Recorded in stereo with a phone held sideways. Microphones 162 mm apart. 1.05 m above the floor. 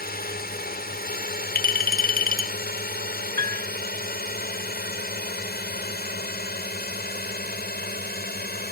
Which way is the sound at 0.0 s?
70° left (ahead or behind).